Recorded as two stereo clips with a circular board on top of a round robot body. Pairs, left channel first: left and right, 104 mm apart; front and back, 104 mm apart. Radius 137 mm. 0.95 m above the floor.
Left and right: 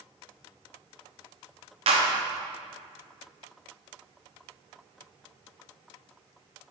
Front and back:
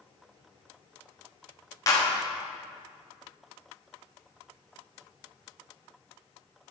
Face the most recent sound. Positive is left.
turn(degrees=-60)